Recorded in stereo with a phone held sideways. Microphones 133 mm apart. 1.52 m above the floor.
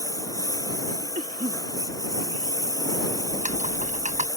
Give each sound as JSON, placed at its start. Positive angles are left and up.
{"t": 0.0, "sound": "a lawn mower", "side_deg": 25}
{"t": 1.1, "sound": "a cough", "side_deg": -75}
{"t": 3.3, "sound": "typing on a keyboard", "side_deg": -70}